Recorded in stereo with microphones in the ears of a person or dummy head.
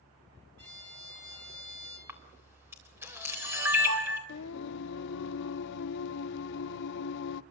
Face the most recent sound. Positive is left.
turn(degrees=65)  # may be behind; listen again after turning